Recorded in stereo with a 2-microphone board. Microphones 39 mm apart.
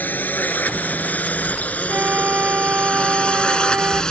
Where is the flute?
45° right (ahead or behind).